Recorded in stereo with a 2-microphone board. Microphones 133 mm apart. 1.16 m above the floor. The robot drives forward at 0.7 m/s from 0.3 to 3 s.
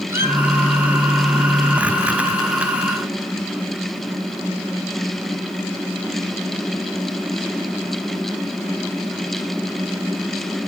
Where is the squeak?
20° right (ahead or behind), 1.5 m.